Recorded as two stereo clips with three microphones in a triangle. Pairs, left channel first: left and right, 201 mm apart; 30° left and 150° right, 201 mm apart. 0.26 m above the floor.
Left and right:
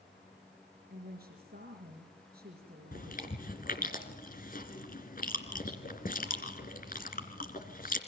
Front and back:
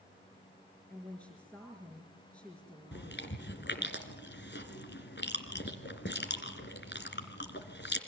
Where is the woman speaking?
55° right, 5 m.